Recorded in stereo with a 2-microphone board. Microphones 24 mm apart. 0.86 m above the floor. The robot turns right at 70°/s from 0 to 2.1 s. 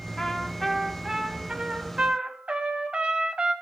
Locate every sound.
0.2 s a trumpet: 135° left, 0.9 m; by 3.5 s 90° right, 0.9 m